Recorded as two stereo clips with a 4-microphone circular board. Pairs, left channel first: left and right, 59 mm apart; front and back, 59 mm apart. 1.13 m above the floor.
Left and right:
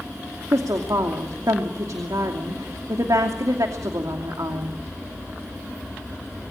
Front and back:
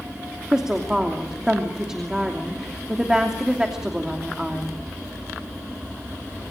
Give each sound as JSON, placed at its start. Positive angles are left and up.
{"t": 0.5, "sound": "a woman speaking", "azimuth_deg": -100, "distance_m": 2.5}